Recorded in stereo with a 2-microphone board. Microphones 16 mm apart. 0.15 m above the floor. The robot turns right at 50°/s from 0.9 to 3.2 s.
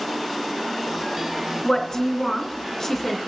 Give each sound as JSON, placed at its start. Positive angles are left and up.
{"t": 1.6, "sound": "a woman speaking", "side_deg": 25, "distance_m": 1.1}